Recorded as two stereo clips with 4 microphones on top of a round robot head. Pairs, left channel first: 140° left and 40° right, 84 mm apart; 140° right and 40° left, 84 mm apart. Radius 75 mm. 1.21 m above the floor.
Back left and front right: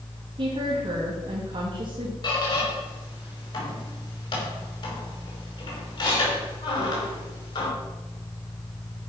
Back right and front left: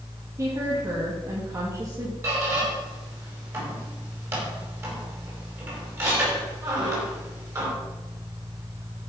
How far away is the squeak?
About 4.5 m.